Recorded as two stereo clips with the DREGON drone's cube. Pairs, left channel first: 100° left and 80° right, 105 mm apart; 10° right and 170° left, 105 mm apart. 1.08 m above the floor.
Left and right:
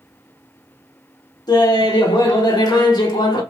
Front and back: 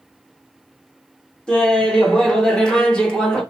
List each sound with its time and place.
1.5 s laughter: 70° left, 0.8 m